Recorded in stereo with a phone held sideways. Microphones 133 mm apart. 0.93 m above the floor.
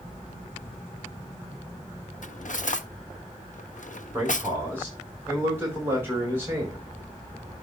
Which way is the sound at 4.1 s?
15° right (ahead or behind).